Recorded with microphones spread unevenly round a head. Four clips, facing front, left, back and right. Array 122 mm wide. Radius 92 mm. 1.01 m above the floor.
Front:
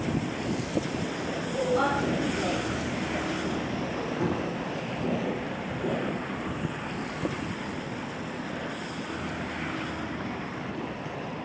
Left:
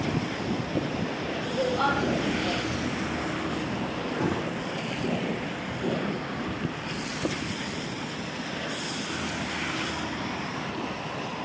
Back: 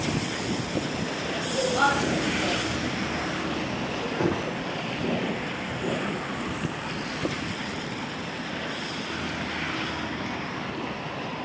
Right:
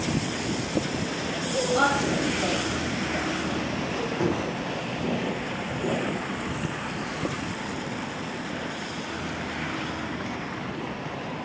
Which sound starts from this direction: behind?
Knocking, at 4.2 s.